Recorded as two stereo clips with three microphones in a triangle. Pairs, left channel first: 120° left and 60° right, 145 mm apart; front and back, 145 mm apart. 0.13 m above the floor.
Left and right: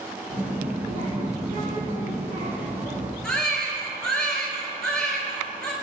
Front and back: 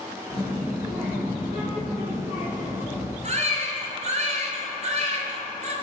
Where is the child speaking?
100° right, 2.5 m.